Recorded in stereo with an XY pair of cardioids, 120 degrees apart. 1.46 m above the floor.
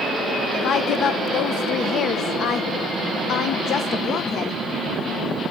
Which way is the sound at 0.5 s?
55° left.